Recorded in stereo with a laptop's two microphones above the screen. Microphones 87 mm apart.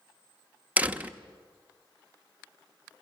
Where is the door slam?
20° right (ahead or behind), 0.8 m.